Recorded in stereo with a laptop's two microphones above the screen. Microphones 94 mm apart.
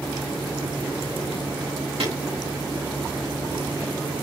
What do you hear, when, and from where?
2.0 s breaking glass: 75° right (ahead or behind), 6 m